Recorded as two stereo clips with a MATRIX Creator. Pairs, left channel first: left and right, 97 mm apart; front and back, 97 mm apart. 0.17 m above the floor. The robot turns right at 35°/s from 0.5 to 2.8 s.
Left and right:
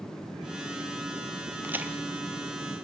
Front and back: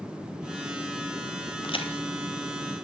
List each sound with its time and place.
1.6 s a crack: 25° right, 1.8 m; by 1.9 s 15° right, 1.8 m